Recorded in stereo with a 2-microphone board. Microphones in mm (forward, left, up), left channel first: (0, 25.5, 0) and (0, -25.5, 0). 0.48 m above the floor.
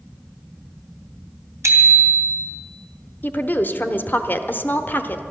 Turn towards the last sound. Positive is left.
turn(degrees=40)  # may be behind; listen again after turning